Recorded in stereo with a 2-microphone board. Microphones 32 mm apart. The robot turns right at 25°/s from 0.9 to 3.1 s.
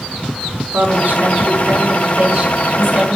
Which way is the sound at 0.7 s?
75° right.